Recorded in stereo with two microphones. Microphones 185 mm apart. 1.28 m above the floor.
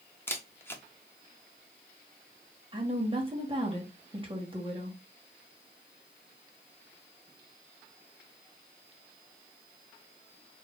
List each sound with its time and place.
0.3 s a camera shutter: 10° left (ahead or behind), 0.6 m
2.7 s a woman speaking: 30° right (ahead or behind), 1.2 m